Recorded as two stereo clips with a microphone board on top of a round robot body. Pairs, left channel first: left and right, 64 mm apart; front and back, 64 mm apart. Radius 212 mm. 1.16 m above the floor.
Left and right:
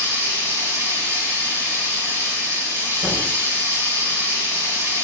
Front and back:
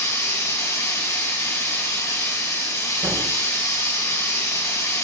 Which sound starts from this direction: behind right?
A thud, at 3.0 s.